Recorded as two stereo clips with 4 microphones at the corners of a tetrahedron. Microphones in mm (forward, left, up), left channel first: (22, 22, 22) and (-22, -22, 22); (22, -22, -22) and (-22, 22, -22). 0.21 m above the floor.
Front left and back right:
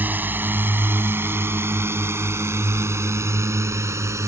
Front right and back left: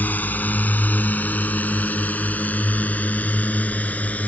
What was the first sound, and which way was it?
A drone, 95° right.